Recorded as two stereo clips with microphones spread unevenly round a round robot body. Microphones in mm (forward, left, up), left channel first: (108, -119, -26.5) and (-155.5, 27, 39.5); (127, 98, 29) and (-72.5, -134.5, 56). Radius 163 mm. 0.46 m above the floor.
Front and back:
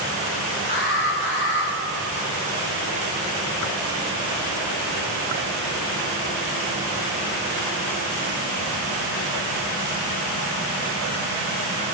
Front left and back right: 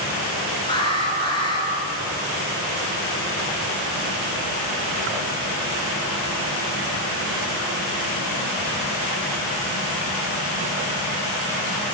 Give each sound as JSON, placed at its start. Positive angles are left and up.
{"t": 0.7, "sound": "an alarm", "azimuth_deg": -25, "distance_m": 6.0}